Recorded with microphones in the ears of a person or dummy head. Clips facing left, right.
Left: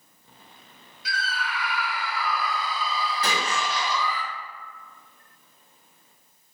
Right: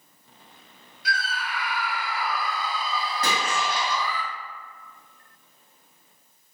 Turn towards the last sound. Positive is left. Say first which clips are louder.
# right 2 dB
turn(degrees=-60)  # may be behind; listen again after turning